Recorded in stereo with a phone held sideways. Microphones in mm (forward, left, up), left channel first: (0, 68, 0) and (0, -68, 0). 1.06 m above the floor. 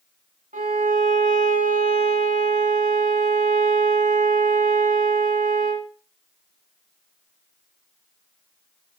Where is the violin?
75° right (ahead or behind), 3 m.